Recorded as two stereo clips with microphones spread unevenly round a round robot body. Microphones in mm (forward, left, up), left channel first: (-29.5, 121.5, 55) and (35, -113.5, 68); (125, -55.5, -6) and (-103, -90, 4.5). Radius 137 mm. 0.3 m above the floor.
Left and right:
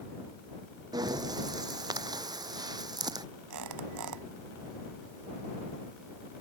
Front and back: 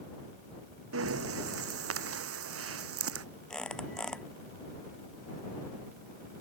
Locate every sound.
0.9 s breathing: 150° right
3.5 s a squeak: 80° right